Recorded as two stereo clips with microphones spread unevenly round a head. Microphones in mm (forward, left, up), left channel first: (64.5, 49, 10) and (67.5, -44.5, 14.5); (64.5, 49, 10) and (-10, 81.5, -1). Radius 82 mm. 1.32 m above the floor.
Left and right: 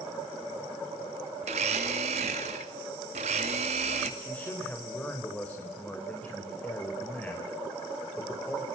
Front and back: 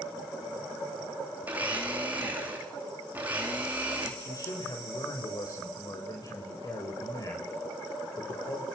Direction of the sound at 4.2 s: 15° left.